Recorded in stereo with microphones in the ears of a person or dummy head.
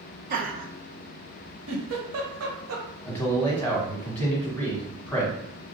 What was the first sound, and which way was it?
Laughter, 45° right (ahead or behind).